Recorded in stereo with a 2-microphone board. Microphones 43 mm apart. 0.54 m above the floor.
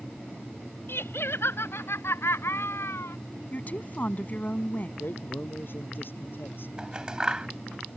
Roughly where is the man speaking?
Left.